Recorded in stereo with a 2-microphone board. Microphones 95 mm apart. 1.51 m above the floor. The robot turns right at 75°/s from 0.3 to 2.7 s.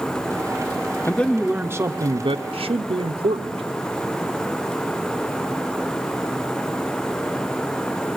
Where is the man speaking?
155° left, 0.7 m; by 3.6 s 80° right, 0.7 m.